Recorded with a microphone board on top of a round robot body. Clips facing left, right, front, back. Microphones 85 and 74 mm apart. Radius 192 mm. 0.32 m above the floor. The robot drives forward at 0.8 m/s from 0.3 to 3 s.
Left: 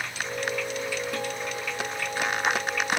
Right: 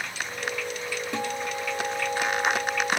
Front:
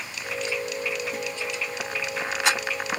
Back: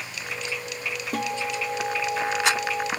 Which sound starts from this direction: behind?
A guitar, at 1.1 s.